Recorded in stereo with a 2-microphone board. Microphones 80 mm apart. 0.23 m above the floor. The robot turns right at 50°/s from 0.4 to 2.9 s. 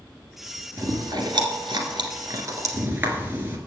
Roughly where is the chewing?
Right.